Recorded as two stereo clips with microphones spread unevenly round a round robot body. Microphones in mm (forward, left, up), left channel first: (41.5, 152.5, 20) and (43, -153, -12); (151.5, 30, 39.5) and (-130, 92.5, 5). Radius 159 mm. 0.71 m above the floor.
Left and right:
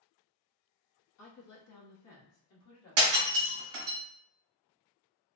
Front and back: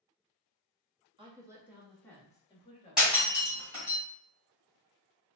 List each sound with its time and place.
1.2 s a woman speaking: 115° left, 1.1 m; by 3.7 s 45° left, 1.8 m
3.0 s breaking glass: 105° right, 1.7 m